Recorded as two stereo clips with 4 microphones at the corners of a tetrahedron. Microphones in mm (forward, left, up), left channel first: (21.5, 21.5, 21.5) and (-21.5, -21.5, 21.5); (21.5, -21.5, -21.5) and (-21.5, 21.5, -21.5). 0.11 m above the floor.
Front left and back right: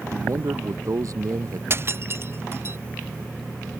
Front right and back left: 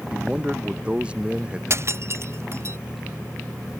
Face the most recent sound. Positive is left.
turn(degrees=180)